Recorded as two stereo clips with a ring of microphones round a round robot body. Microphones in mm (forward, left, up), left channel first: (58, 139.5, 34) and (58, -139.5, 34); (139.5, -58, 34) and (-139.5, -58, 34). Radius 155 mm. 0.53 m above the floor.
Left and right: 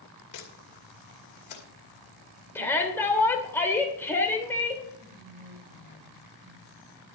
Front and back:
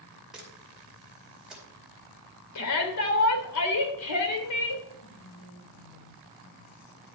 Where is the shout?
10° left, 2.5 m.